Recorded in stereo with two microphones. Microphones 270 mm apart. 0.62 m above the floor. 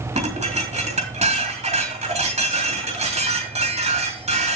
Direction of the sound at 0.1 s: 25° right (ahead or behind).